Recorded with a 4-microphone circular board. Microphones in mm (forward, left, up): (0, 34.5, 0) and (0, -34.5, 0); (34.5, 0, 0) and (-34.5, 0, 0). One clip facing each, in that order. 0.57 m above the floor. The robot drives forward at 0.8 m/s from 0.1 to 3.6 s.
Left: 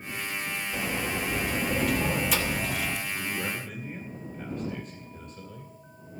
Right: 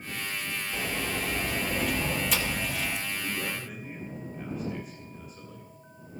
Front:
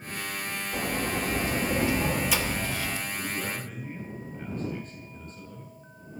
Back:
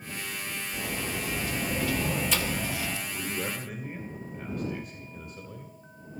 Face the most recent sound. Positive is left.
turn(degrees=-170)